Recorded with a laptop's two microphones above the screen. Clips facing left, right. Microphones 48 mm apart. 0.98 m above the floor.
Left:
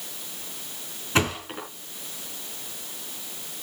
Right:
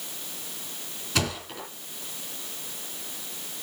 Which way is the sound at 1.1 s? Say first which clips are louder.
Left 5 dB; 30° left (ahead or behind).